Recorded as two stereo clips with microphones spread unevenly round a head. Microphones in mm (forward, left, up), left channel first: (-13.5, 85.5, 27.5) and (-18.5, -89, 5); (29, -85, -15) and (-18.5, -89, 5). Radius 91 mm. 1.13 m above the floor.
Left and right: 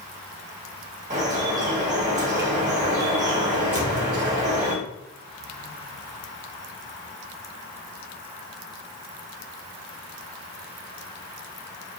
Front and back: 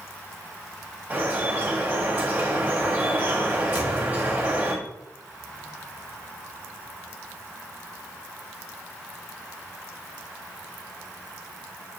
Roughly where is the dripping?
Behind right.